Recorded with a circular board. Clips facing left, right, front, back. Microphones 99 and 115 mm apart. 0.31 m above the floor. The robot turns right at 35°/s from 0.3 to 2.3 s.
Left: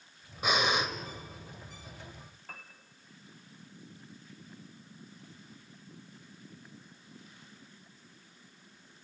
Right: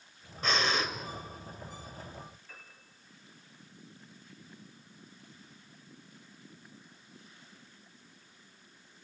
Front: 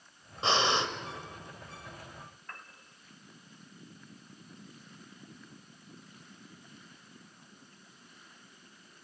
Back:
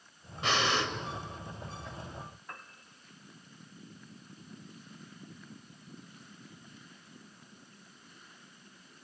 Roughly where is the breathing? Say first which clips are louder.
Left 1 dB, front 2 dB; ahead left.